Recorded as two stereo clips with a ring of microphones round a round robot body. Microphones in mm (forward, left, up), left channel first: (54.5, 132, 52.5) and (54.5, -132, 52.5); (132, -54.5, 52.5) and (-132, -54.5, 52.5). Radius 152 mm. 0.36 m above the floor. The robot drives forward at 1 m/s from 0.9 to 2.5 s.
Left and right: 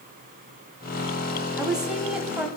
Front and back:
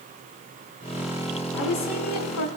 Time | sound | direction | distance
1.6 | a woman speaking | 5° right | 4 m